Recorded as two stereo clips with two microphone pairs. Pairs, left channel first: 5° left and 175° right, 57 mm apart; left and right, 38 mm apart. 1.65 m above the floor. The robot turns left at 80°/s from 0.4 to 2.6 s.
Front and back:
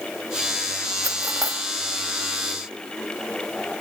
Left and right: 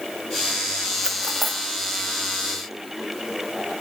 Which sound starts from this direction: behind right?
Cutlery clinking, at 1.0 s.